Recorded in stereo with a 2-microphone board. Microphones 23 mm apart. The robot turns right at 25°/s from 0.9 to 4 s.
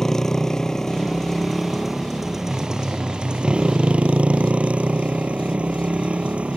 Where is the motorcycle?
165° left; by 6.6 s 120° right.